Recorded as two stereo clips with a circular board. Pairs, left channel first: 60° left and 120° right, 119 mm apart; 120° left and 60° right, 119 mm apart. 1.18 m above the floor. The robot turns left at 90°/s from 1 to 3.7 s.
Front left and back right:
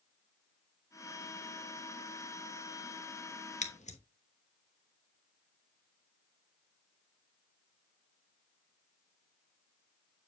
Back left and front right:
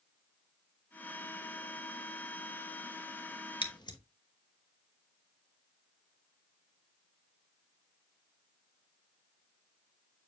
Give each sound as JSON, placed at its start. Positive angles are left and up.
{"t": 3.6, "sound": "scissors", "azimuth_deg": 75, "distance_m": 1.0}